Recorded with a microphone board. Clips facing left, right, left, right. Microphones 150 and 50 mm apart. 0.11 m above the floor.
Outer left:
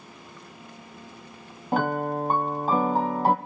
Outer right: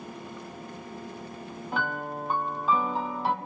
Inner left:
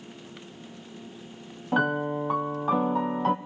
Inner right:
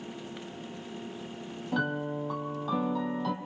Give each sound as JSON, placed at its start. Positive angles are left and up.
{"t": 1.7, "sound": "a piano", "side_deg": 45, "distance_m": 0.6}